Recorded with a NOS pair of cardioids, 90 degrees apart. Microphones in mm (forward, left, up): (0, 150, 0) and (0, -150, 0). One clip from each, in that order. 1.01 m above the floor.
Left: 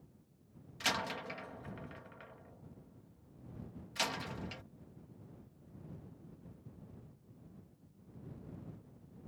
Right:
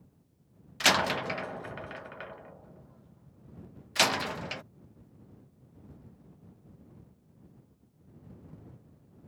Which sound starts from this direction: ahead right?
A door slam, at 0.8 s.